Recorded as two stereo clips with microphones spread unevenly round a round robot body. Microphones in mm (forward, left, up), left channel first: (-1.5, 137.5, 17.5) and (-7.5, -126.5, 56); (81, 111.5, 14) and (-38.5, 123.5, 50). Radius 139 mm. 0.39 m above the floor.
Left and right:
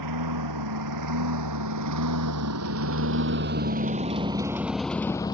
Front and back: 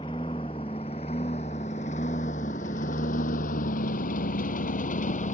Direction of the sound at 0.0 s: 75° right.